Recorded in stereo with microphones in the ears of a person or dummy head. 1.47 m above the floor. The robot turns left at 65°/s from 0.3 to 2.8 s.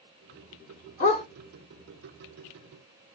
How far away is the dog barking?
About 1.6 m.